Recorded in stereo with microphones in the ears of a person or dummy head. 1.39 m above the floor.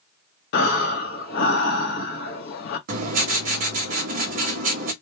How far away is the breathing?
About 0.8 m.